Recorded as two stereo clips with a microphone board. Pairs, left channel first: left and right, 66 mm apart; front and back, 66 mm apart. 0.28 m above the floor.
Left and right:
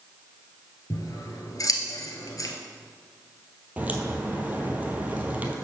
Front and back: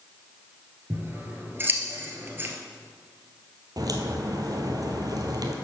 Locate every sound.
0.9 s scissors: 120° left, 1.3 m
3.8 s a crack: 155° right, 1.2 m